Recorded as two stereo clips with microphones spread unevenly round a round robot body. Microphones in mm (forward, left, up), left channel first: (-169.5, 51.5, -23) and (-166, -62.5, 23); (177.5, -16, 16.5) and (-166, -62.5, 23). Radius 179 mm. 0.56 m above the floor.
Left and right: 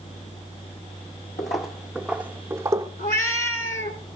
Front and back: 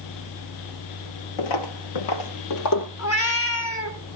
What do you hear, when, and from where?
1.4 s footsteps: 25° left, 0.9 m; by 2.9 s 40° right, 1.1 m
3.0 s a cat meowing: 65° left, 1.5 m